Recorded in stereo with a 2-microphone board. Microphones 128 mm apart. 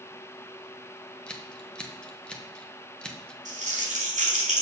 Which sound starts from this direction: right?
Crumpling, at 3.5 s.